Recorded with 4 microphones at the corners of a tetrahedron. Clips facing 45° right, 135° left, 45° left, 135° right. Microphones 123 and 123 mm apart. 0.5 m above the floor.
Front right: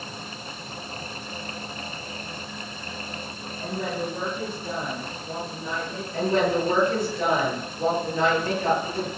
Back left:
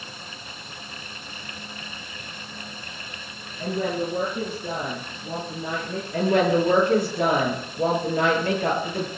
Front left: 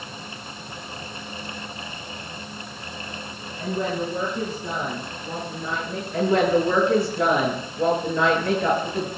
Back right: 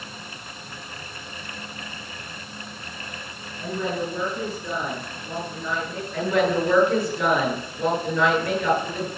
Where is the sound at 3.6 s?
105° left, 6.5 m; by 6.0 s 110° left, 8 m.